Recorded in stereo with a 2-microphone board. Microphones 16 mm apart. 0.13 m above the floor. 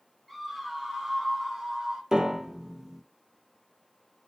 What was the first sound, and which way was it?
A scream, 25° right (ahead or behind).